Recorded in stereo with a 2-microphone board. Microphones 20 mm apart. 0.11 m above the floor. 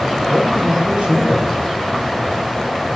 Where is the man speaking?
70° right (ahead or behind), 5 m.